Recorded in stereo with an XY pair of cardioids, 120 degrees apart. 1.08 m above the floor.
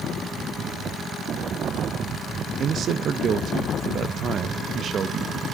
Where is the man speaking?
50° right, 0.8 m.